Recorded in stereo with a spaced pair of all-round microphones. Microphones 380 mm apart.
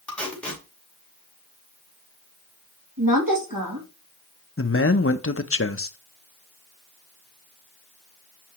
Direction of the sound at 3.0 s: 65° right (ahead or behind).